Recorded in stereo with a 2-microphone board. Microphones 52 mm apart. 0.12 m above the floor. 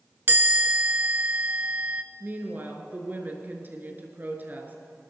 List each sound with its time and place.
0.3 s a chime: 40° right (ahead or behind), 0.9 m
2.2 s a woman speaking: 40° right (ahead or behind), 1.7 m